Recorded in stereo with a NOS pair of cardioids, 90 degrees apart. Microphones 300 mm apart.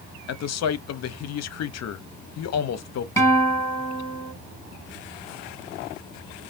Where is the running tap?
I don't hear a running tap.